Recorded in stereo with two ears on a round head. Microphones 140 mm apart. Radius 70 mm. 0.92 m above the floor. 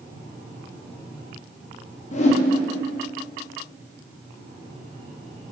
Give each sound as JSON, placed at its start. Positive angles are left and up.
{"t": 2.1, "sound": "a whoosh", "side_deg": 45, "distance_m": 0.7}